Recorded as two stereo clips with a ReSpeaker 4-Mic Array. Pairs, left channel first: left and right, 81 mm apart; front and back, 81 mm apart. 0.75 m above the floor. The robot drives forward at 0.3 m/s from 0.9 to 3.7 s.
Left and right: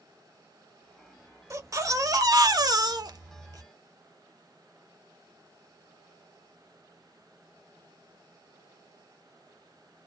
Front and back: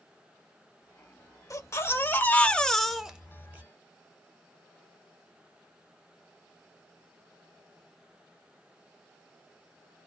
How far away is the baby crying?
About 0.6 m.